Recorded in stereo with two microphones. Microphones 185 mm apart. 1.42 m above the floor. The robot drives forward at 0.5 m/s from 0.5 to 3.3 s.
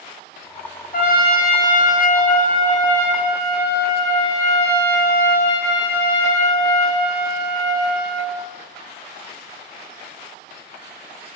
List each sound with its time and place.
0.9 s a trumpet: 55° left (ahead or behind), 1.0 m; by 8.3 s 30° left (ahead or behind), 1.5 m